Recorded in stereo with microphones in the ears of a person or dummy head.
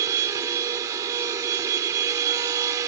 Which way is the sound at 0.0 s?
20° right (ahead or behind).